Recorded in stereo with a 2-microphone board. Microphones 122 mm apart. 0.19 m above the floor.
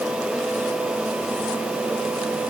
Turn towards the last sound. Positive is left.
No sound to turn to.